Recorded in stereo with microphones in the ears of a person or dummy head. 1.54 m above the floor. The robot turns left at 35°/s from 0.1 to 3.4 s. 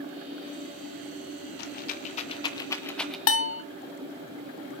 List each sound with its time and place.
1.6 s a rattle: 55° left (ahead or behind), 1.5 m; by 3.2 s centre (ahead or behind), 1.5 m
3.3 s a bell: 70° left (ahead or behind), 0.7 m; by 3.6 s 65° left (ahead or behind), 0.7 m